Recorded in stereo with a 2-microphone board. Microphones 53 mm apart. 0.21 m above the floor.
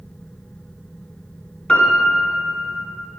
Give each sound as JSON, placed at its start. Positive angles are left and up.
{"t": 1.7, "sound": "a piano", "side_deg": 25, "distance_m": 1.4}